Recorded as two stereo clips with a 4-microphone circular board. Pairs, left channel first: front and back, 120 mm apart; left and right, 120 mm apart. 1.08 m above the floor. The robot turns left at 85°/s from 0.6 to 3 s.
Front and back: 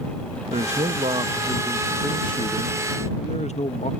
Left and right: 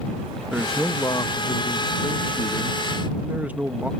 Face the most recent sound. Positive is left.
turn(degrees=-15)